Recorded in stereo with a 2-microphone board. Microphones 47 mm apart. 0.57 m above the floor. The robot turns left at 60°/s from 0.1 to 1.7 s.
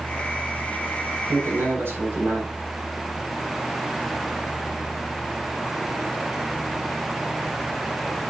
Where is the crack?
No crack in this recording.